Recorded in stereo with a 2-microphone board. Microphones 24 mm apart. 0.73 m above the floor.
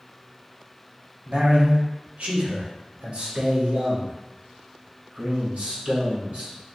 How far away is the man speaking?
About 1.2 m.